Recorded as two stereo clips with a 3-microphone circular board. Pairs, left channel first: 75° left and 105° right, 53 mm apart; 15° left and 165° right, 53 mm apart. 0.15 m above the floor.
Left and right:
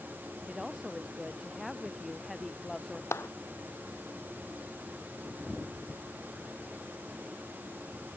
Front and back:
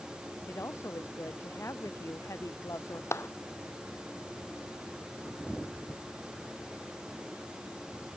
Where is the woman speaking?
25° right; by 3.0 s 15° right.